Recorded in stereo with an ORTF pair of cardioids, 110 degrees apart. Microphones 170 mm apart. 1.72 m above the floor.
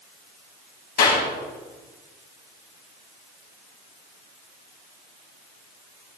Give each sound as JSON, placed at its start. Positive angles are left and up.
{"t": 1.0, "sound": "a clap", "azimuth_deg": 60, "distance_m": 9.0}